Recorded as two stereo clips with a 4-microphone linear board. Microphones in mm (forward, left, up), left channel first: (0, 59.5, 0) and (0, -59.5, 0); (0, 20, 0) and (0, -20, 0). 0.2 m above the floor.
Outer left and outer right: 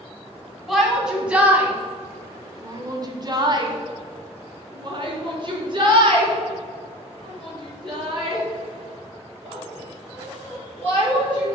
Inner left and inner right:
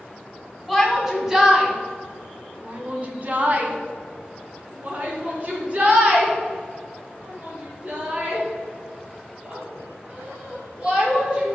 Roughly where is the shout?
Centre.